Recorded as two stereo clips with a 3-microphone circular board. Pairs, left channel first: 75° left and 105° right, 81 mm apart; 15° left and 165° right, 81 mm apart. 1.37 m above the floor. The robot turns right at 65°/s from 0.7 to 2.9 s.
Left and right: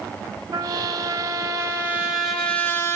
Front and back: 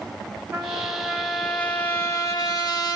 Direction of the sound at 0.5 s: 110° right.